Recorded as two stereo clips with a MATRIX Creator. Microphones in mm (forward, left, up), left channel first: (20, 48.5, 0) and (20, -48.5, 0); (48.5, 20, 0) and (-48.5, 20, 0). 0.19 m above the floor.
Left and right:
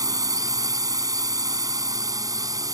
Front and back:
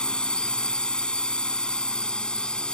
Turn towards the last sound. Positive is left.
turn(degrees=-75)